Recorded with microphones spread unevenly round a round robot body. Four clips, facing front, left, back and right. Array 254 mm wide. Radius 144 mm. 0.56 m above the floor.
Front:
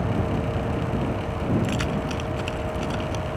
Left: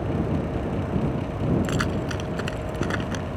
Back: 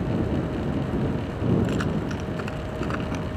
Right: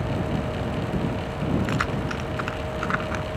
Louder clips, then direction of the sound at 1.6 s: Even, even; 95° left.